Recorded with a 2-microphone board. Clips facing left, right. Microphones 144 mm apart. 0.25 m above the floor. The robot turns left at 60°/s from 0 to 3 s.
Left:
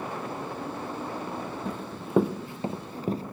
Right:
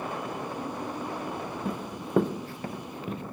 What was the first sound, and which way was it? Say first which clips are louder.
Running footsteps: right 1 dB; 10° right (ahead or behind).